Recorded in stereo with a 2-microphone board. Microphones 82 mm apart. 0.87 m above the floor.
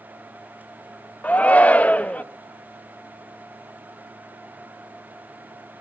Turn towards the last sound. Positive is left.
turn(degrees=15)  # may be behind; listen again after turning